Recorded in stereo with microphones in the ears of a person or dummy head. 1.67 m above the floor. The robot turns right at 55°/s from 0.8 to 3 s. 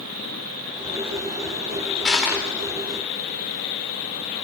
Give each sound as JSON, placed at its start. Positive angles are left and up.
{"t": 2.0, "sound": "crushing", "side_deg": 5, "distance_m": 4.0}